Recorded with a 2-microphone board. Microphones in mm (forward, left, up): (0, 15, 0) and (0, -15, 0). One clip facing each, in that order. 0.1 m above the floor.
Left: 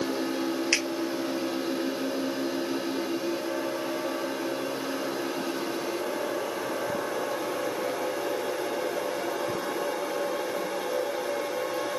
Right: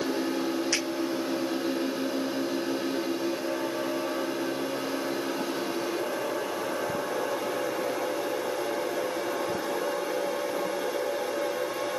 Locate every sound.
0.7 s a finger snap: 45° left (ahead or behind), 1.4 m